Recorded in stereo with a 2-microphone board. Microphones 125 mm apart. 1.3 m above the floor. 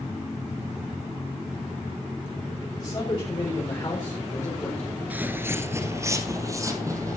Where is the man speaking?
35° left (ahead or behind), 6.5 m; by 5.0 s 15° left (ahead or behind), 3.5 m.